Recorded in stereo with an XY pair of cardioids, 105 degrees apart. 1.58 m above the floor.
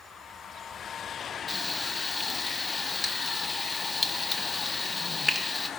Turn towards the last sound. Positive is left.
turn(degrees=20)